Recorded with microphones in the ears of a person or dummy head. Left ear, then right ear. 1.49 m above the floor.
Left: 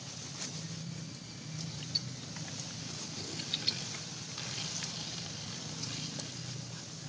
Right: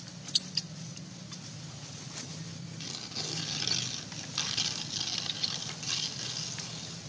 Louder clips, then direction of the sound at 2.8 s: Right 4 dB; 45° right (ahead or behind).